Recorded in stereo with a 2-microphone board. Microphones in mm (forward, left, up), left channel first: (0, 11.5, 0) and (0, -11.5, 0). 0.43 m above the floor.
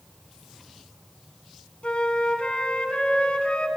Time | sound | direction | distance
1.8 | a flute | 50° left (ahead or behind) | 1.9 m